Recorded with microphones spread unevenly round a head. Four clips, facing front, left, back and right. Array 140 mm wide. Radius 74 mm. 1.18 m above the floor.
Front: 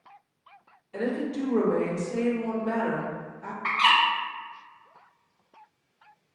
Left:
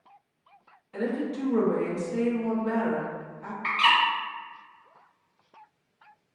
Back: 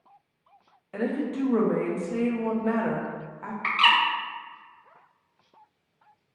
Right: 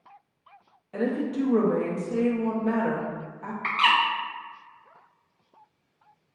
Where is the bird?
175° left, 0.9 m.